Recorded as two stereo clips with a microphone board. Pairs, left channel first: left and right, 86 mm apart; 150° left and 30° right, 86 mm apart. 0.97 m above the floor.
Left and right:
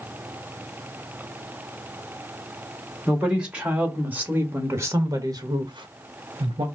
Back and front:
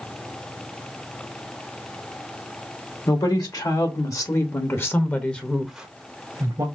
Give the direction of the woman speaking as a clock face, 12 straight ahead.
6 o'clock.